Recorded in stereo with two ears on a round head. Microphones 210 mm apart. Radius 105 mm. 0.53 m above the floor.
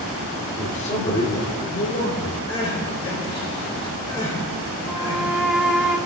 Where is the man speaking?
25° left (ahead or behind), 1.4 m; by 2.4 s 40° left (ahead or behind), 2.5 m.